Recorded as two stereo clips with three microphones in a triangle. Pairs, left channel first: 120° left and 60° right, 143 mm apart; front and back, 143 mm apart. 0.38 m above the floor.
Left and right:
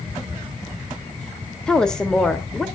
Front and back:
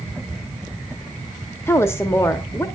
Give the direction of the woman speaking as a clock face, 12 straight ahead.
11 o'clock.